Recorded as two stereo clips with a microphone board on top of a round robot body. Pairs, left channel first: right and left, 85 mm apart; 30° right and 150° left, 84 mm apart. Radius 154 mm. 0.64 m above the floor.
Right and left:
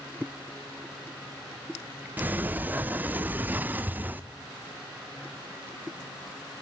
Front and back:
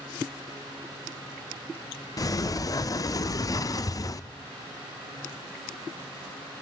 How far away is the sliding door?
About 0.8 m.